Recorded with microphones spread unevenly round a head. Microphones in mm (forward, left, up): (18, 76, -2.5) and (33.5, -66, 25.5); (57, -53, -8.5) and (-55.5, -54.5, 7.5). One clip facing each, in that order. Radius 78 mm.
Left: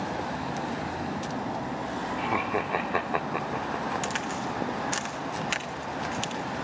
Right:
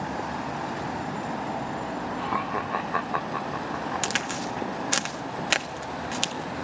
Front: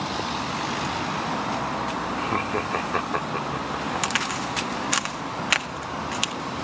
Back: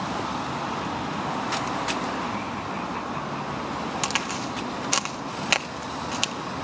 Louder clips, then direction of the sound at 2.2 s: Left 3 dB, front 4 dB; 30° left.